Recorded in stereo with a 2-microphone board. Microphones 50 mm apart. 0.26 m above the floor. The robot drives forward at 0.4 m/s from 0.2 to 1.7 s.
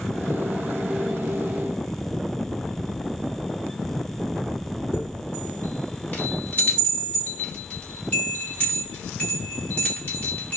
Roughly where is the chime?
Left.